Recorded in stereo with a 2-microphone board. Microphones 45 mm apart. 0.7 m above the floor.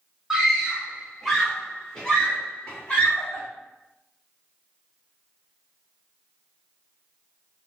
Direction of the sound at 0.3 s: 10° right (ahead or behind).